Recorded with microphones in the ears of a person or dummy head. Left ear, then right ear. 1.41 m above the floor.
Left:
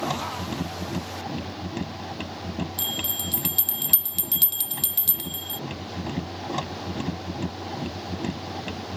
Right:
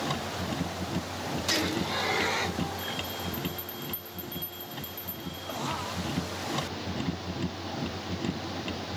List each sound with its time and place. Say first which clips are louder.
0.0 s a machine running: left 4 dB; 25° left (ahead or behind)
2.8 s a bell: left 5 dB; 70° left (ahead or behind)